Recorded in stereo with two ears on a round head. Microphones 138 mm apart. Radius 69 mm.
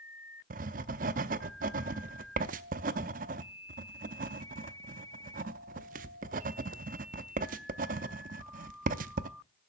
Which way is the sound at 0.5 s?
55° right (ahead or behind).